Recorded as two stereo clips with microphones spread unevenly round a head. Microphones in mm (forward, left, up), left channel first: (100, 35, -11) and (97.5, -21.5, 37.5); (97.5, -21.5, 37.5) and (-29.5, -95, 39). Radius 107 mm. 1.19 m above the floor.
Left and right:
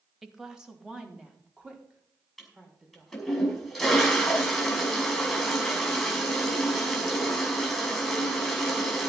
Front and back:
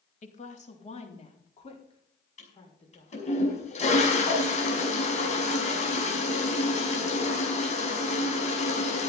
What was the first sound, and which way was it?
A woman speaking, straight ahead.